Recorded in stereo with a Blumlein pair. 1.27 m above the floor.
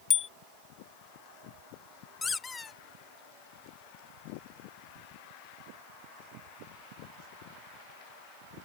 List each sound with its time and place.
0.1 s a bicycle bell: 20° left
2.2 s a squeak: 15° left